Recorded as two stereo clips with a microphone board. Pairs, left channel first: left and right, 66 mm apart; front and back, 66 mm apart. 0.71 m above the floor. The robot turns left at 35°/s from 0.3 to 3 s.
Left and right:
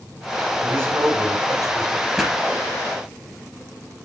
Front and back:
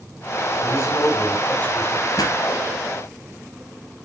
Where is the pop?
5° right, 2.5 m; by 2.4 s 10° right, 2.5 m.